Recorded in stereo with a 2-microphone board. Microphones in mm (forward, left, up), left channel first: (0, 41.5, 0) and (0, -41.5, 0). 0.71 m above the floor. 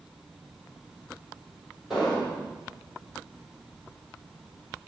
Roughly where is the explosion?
Centre.